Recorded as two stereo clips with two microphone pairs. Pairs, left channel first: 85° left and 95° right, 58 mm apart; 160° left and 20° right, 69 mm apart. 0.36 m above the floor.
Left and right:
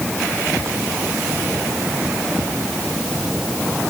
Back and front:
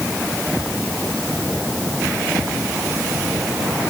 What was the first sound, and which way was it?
Only background noise.